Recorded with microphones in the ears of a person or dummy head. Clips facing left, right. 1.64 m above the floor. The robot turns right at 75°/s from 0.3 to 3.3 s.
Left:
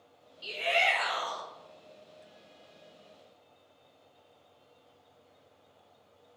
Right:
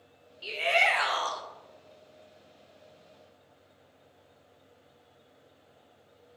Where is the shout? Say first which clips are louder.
Right 2 dB; 155° right, 0.8 m; by 1.4 s 80° right, 0.8 m.